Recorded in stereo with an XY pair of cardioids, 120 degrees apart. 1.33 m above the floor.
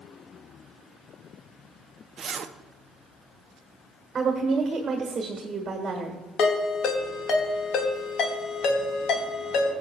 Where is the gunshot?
I don't hear a gunshot.